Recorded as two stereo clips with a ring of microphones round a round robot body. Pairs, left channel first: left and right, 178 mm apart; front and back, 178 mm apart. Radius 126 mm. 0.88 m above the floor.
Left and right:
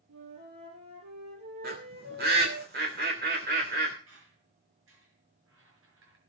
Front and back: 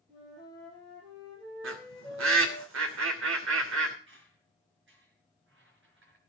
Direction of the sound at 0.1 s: 110° right.